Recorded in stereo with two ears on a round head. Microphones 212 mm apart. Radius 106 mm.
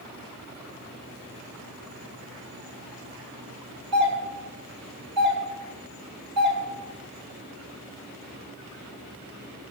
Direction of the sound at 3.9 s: 45° right (ahead or behind).